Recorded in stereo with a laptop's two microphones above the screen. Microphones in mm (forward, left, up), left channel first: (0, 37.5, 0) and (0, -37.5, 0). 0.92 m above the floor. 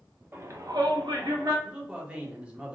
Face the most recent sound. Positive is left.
turn(degrees=-15)  # may be behind; listen again after turning